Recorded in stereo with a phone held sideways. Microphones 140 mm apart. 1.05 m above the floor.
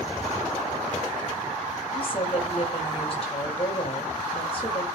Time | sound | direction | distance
1.9 | a woman speaking | 45° left (ahead or behind) | 6 m